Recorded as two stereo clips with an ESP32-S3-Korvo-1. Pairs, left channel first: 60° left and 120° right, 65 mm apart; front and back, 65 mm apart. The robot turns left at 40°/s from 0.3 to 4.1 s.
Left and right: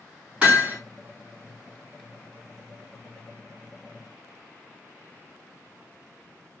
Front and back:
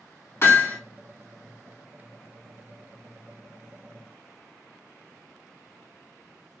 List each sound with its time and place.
0.4 s hammering: 45° right, 2.5 m; by 0.8 s 60° right, 2.5 m